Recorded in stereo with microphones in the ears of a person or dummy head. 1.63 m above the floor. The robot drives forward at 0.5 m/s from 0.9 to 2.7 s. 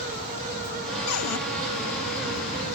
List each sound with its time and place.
1.1 s a cupboard door: 80° left, 0.8 m; by 1.4 s 75° left (ahead or behind), 0.8 m